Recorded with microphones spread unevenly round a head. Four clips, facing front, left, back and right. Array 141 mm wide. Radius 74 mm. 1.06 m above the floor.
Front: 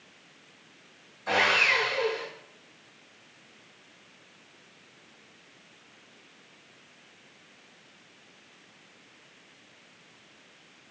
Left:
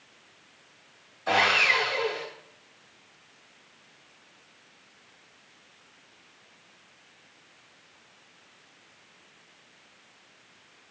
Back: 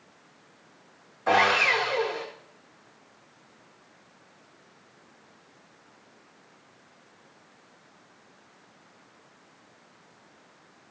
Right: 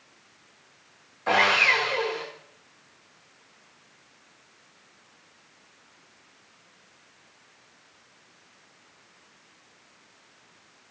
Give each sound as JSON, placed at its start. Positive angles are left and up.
{"t": 1.3, "sound": "sawing", "azimuth_deg": -150, "distance_m": 0.9}